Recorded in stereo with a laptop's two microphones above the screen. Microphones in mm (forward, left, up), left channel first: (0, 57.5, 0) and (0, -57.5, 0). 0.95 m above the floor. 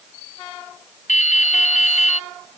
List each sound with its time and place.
1.1 s dripping: 75° left (ahead or behind)